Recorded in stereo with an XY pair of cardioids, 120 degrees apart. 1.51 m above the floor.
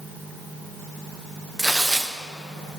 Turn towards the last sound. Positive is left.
turn(degrees=-10)